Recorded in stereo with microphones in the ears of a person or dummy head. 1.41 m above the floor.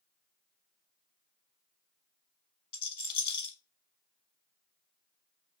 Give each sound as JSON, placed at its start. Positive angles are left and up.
{"t": 2.7, "sound": "a rattle", "side_deg": 35, "distance_m": 1.2}